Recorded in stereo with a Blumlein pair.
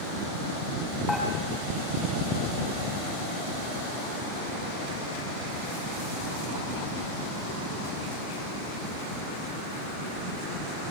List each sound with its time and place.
1.1 s dishes clattering: straight ahead, 7.5 m